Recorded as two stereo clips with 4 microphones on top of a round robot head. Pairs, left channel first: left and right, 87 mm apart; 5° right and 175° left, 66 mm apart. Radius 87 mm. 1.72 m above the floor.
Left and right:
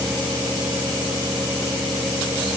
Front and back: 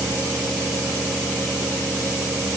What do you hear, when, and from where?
Only background noise.